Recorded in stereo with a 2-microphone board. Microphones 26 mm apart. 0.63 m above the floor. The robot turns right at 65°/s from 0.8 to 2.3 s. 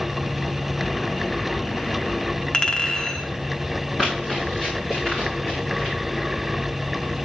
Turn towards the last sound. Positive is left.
turn(degrees=10)  # may be behind; listen again after turning